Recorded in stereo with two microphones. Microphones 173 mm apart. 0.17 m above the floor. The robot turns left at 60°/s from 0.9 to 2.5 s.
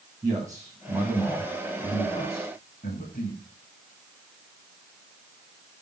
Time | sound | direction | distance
0.2 | a man speaking | 160° right | 8 m